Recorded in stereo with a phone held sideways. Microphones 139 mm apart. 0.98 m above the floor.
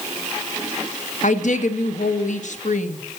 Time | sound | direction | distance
1.2 | a woman speaking | 65° left (ahead or behind) | 1.2 m